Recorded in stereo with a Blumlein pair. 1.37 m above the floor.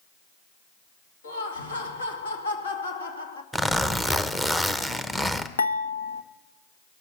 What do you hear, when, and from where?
1.2 s laughter: 70° left, 2 m
3.5 s a zipper: 5° left, 0.8 m
5.6 s dishes clattering: 70° left, 1.2 m